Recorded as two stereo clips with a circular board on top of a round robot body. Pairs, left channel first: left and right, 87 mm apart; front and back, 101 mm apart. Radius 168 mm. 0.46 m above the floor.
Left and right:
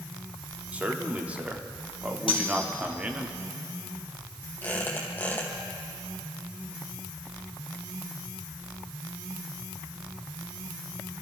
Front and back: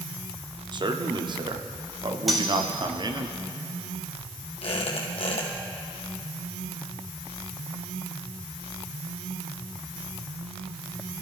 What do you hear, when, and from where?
0.7 s a man speaking: 160° right, 1.4 m
2.3 s cutlery clinking: 90° left, 1.8 m
4.6 s a squeak: 20° left, 1.9 m